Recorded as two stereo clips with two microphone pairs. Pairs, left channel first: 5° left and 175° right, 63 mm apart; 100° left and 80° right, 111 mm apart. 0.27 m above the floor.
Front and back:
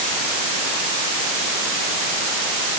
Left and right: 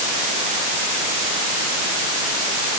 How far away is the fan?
No fan in this recording.